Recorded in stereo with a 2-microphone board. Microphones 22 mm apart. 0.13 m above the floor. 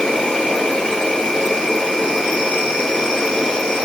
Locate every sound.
0.0 s an insect: 60° left (ahead or behind), 1.5 m